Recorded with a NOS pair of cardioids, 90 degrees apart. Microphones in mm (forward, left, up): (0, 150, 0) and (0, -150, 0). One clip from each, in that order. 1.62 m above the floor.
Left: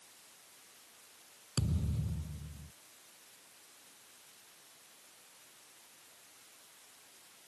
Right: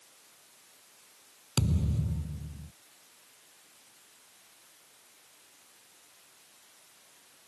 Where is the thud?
45° right.